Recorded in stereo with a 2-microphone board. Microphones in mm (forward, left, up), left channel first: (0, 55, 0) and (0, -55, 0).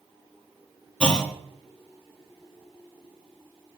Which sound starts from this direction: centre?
A clunk, at 1.0 s.